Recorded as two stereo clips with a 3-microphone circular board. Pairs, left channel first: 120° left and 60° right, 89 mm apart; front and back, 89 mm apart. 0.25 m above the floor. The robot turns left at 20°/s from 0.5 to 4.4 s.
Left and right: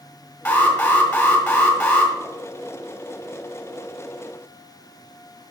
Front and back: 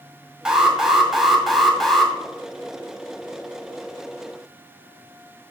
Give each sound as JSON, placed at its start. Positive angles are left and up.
{"t": 0.5, "sound": "an alarm", "azimuth_deg": 105, "distance_m": 1.8}